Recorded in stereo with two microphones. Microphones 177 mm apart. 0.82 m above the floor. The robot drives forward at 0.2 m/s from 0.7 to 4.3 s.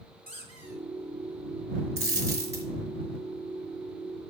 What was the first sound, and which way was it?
A squeak, 45° left (ahead or behind).